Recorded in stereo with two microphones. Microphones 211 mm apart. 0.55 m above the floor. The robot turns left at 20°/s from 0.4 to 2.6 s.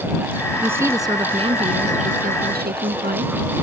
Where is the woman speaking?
10° right; by 3.3 s 50° right.